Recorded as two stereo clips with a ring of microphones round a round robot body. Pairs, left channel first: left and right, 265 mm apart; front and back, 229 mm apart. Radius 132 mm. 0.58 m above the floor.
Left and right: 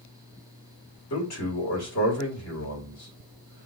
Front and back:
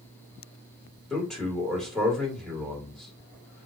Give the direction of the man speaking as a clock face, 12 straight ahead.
9 o'clock.